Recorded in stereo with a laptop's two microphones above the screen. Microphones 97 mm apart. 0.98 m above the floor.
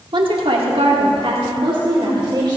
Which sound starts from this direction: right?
A woman speaking, at 0.1 s.